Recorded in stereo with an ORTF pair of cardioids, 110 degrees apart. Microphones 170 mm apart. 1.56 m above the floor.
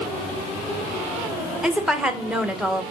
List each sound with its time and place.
1.6 s a woman speaking: 5° right, 1.5 m